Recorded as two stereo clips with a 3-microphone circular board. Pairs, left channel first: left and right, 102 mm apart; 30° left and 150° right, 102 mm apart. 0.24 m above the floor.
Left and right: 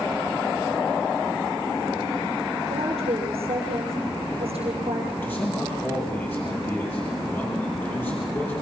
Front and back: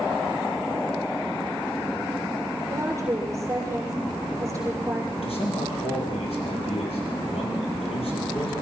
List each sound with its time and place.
2.7 s a woman speaking: 90° right, 6.5 m
5.2 s a man speaking: 20° left, 6.5 m